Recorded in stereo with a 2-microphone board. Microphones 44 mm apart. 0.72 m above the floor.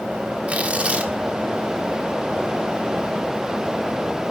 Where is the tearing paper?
25° right (ahead or behind), 1.4 m.